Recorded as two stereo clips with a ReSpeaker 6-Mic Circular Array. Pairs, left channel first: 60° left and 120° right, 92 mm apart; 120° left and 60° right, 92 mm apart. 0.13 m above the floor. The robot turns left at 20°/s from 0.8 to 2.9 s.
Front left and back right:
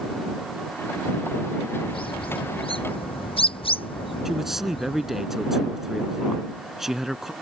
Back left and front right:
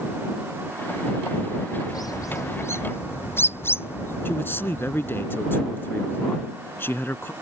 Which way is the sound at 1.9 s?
75° left.